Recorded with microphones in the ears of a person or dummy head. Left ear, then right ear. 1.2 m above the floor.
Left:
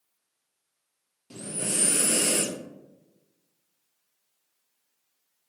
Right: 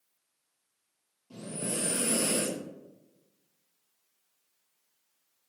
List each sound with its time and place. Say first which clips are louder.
1.3 s breathing: left 4 dB; 65° left (ahead or behind), 0.8 m